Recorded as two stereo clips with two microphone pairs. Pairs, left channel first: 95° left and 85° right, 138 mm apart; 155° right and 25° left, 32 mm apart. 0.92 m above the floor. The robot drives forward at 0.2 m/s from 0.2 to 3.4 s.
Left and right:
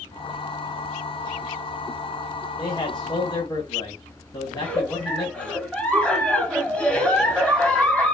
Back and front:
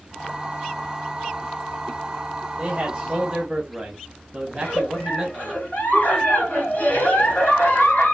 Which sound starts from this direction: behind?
A giggle, at 4.5 s.